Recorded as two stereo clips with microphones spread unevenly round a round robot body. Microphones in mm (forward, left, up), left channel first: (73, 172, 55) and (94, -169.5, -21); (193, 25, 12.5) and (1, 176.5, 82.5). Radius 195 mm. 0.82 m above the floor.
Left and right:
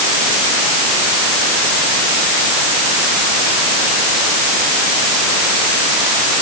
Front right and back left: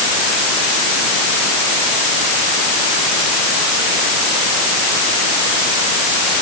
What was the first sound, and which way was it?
Only background noise.